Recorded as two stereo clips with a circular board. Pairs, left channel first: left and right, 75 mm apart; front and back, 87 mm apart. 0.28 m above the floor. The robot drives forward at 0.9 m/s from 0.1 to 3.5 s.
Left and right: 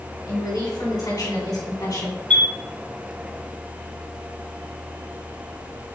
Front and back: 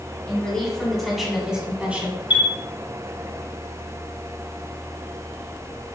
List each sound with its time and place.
0.3 s a woman speaking: 75° left, 3 m; by 2.2 s 115° left, 3 m
2.3 s a chime: 15° left, 1.9 m; by 2.5 s 20° left, 1.7 m